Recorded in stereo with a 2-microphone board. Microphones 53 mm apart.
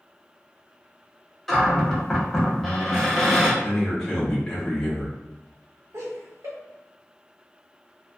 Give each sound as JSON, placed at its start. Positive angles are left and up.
{"t": 1.5, "sound": "a cupboard door", "side_deg": 0, "distance_m": 0.8}
{"t": 3.6, "sound": "a man speaking", "side_deg": 10, "distance_m": 1.2}
{"t": 5.9, "sound": "laughter", "side_deg": -75, "distance_m": 1.1}